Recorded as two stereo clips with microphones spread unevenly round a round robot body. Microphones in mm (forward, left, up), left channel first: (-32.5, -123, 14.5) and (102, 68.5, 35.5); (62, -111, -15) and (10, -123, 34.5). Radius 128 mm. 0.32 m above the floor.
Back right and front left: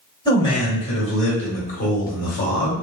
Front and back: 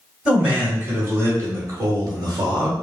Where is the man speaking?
60° right, 1.6 m; by 2.7 s 135° right, 1.4 m.